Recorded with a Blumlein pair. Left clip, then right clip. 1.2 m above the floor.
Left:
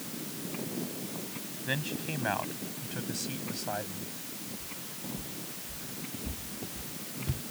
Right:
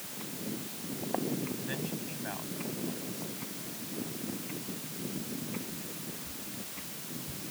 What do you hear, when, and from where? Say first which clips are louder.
1.6 s a man speaking: left 4 dB; 70° left; by 4.1 s 45° left
4.6 s footsteps: right 1 dB; 55° left